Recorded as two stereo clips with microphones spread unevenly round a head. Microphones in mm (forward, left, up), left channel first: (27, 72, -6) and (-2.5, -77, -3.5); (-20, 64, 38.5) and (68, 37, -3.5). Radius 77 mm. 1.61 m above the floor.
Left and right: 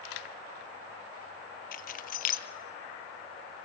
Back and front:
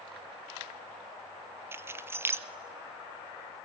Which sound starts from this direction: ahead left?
Keys jangling, at 1.7 s.